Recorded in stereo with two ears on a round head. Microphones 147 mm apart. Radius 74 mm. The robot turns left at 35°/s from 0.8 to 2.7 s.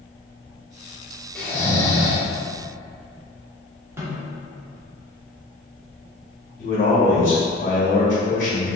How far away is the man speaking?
About 1.4 m.